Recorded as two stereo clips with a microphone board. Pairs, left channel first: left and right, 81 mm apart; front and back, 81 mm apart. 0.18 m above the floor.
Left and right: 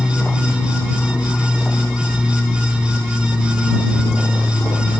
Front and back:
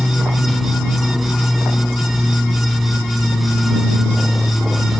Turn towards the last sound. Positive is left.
turn(degrees=90)